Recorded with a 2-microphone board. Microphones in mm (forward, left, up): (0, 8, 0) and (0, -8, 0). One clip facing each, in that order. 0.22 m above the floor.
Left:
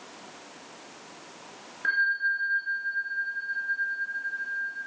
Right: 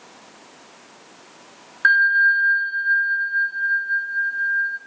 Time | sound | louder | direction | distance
1.8 | a bell | right 10 dB | 60° right (ahead or behind) | 1.8 m